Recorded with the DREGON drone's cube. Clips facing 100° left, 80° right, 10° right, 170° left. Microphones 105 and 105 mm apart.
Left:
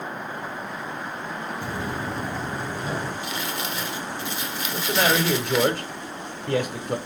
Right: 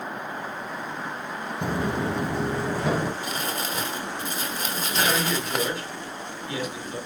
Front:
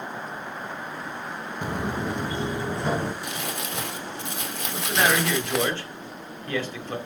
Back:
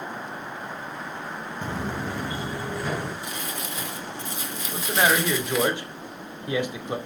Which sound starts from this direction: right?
Footsteps, at 1.6 s.